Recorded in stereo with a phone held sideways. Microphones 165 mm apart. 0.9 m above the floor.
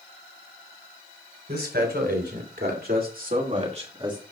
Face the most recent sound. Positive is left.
turn(degrees=-25)  # may be behind; listen again after turning